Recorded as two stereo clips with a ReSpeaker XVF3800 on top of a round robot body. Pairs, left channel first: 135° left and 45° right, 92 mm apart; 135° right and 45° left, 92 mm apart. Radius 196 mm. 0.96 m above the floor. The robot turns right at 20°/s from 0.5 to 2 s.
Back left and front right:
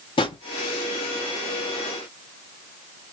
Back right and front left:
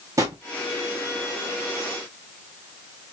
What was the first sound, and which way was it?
A drawer, 100° left.